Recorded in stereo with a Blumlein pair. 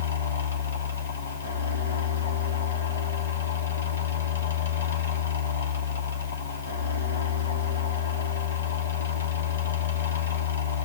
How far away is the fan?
About 1.1 m.